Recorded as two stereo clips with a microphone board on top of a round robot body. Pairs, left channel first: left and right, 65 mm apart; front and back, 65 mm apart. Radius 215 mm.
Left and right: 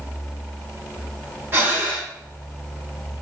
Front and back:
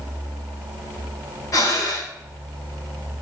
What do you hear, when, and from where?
1.5 s breathing: 35° right, 1.5 m